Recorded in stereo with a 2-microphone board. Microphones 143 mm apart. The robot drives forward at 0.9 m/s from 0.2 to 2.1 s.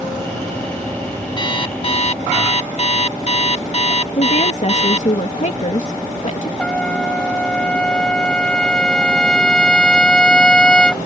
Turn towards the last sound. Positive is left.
turn(degrees=5)  # may be behind; listen again after turning